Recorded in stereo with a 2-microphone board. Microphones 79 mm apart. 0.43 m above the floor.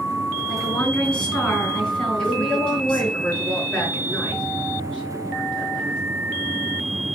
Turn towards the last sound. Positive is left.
turn(degrees=15)  # may be behind; listen again after turning